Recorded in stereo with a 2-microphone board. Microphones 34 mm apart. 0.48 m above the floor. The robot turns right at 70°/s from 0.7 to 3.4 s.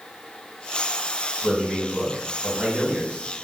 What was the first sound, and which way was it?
A man speaking, 160° right.